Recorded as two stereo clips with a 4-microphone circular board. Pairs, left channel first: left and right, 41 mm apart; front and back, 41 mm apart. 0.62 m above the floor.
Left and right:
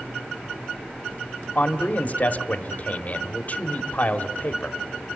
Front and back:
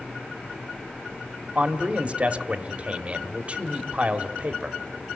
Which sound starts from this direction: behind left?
A man speaking, at 1.6 s.